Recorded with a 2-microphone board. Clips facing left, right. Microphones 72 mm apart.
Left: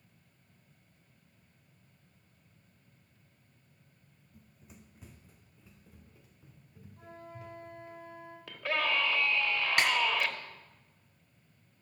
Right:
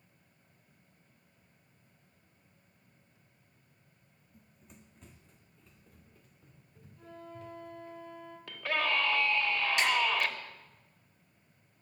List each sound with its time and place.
4.3 s running footsteps: centre (ahead or behind), 0.8 m; by 8.0 s 10° left (ahead or behind), 4 m
7.0 s a flute: 60° left (ahead or behind), 3 m
8.5 s a scream: centre (ahead or behind), 1.6 m
9.8 s a snare drum: 60° left (ahead or behind), 1.7 m